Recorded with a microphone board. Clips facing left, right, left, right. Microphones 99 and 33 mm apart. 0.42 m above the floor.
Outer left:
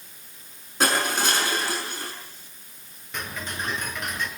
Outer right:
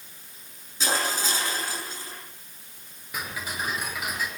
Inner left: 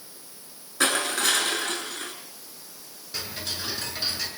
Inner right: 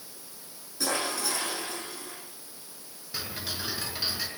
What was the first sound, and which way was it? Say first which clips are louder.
Crushing: outer left 4 dB, inner left 6 dB; 60° left (ahead or behind).